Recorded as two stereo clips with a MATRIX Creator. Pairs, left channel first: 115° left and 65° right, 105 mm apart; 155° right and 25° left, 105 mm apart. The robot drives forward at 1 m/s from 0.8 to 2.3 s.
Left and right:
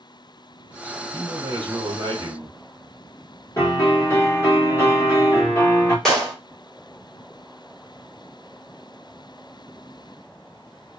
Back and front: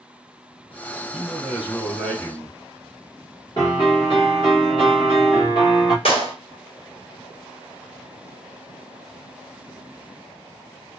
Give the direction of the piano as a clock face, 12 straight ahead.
6 o'clock.